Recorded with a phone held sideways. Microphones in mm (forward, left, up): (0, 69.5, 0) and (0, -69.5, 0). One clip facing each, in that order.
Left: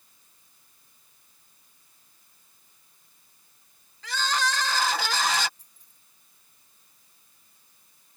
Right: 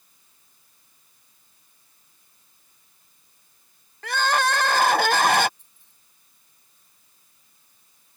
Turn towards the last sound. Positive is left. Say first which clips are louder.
# even
turn(degrees=40)  # may be behind; listen again after turning